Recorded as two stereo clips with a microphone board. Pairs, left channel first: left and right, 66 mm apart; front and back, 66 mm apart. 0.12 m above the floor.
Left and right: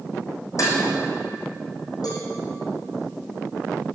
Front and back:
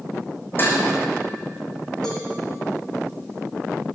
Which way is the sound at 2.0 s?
80° left.